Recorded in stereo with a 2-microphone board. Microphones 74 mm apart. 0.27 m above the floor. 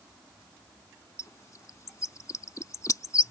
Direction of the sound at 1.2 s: 50° left (ahead or behind).